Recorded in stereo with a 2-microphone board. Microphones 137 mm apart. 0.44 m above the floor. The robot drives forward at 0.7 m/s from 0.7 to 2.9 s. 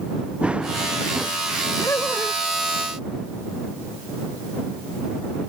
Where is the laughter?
20° left (ahead or behind).